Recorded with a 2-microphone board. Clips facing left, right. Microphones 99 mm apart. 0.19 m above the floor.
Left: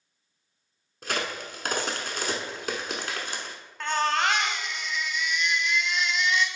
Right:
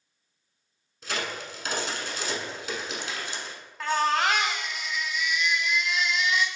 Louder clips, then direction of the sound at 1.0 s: Left 2 dB; 55° left (ahead or behind).